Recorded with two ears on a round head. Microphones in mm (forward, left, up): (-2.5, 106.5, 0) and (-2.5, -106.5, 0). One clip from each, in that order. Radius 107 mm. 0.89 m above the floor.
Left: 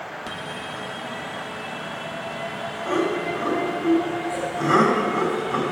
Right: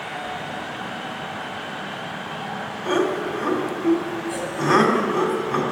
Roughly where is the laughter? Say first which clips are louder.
Right 2 dB; centre.